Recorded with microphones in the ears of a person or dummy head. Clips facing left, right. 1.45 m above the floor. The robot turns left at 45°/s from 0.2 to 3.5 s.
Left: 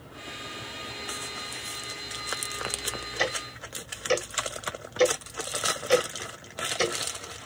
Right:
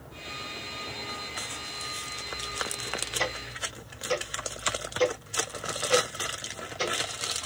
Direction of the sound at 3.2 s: 15° left (ahead or behind).